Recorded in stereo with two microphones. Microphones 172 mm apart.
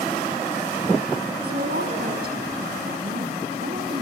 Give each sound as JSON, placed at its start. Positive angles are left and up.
{"t": 1.4, "sound": "a woman speaking", "side_deg": -65, "distance_m": 6.0}